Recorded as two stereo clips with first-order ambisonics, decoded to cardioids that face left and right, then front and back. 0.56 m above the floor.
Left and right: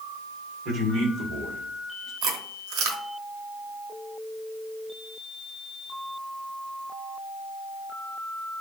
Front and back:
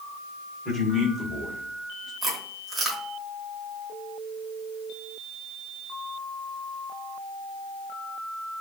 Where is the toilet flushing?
I don't hear a toilet flushing.